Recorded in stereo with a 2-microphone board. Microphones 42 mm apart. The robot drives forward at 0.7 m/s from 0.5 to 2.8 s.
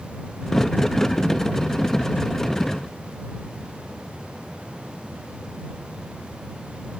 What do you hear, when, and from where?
Only background noise.